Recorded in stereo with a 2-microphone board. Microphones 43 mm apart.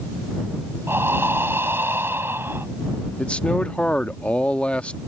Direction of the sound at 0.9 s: 60° right (ahead or behind).